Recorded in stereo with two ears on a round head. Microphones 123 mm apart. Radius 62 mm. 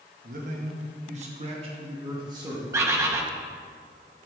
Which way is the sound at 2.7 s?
20° right (ahead or behind).